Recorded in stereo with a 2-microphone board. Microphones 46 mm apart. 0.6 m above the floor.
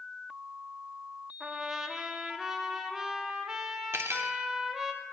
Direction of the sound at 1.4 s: 10° right (ahead or behind).